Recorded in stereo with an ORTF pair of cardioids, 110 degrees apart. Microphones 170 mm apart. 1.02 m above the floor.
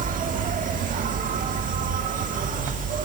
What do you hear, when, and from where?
0.0 s an insect: 50° right, 1.7 m